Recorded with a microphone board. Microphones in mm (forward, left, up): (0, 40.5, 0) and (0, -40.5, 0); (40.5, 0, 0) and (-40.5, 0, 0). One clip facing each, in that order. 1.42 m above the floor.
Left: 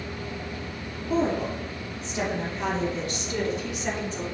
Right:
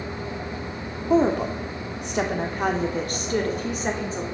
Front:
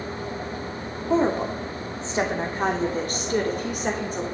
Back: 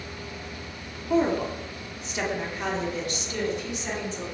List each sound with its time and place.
1.1 s a woman speaking: 70° right, 3 m; by 4.2 s 35° right, 3.5 m